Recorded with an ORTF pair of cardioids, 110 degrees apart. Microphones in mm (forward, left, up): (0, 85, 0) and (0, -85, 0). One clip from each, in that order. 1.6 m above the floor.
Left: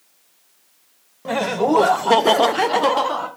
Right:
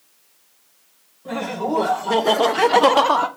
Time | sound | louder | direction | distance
1.2 | laughter | left 5 dB | 65° left | 1.1 m